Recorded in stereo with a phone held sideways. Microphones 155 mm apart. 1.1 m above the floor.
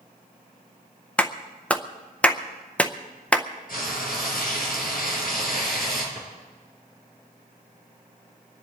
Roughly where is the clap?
Centre.